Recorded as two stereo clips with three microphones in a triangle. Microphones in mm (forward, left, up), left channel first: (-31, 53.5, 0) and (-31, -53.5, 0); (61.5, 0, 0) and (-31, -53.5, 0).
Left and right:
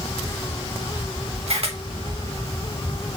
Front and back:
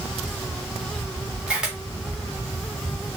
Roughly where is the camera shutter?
Right.